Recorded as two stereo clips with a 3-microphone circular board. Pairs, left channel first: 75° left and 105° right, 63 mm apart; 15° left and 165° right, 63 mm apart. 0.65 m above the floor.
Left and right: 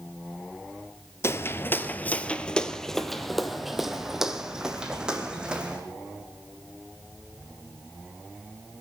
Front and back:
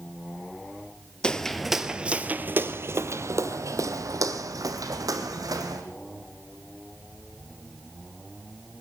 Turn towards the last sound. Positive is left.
turn(degrees=180)